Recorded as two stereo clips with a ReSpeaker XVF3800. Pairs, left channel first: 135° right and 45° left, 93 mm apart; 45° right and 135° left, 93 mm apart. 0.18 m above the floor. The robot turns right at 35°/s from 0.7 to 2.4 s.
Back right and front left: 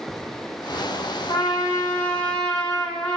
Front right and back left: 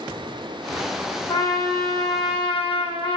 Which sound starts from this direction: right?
A trumpet, at 1.3 s.